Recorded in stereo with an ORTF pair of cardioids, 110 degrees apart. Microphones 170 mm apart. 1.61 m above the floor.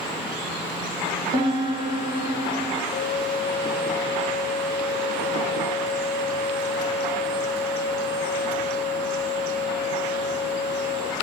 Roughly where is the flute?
Ahead left.